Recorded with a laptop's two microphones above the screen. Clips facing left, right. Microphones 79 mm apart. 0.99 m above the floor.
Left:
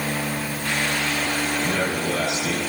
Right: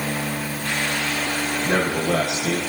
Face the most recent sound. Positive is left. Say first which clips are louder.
# right 3 dB
turn(degrees=-60)  # may be behind; listen again after turning